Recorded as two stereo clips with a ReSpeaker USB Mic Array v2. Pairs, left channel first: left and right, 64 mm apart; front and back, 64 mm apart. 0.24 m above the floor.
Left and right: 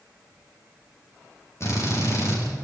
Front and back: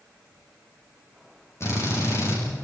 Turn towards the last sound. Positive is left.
turn(degrees=45)